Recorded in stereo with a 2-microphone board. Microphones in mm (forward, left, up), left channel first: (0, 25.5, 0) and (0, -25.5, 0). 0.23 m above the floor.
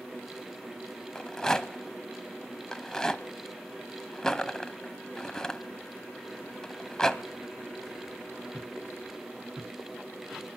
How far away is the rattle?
About 0.5 m.